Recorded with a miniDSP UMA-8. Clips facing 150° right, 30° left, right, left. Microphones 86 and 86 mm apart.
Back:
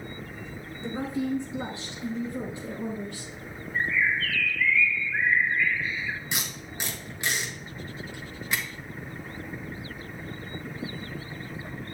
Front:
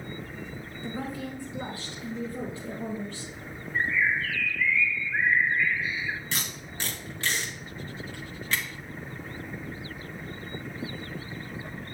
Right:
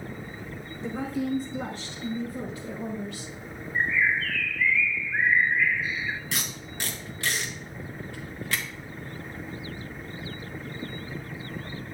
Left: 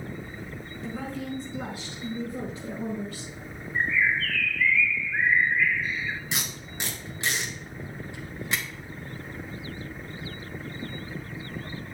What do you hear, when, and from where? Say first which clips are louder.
0.8 s a woman speaking: back 6 dB, right 5 dB; 110° right, 1.2 m; by 3.3 s 135° left, 2.5 m
3.8 s a bird: even, even; 20° right, 0.6 m
6.3 s tape being pulled: back 1 dB, even; 145° left, 1.7 m